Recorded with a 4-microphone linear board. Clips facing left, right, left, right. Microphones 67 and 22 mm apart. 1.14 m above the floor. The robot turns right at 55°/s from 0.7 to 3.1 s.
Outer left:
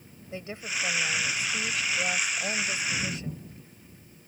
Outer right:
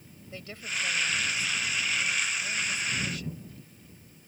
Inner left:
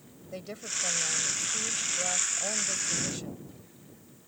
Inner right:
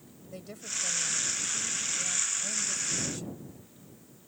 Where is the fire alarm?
I don't hear a fire alarm.